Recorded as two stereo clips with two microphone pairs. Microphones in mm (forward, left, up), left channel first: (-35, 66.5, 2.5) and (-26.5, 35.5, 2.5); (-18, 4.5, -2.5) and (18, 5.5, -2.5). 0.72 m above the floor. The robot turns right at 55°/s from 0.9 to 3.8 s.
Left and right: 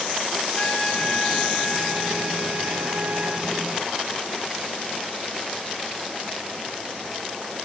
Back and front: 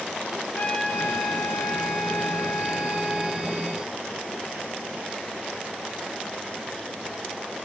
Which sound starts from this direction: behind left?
A trumpet, at 0.6 s.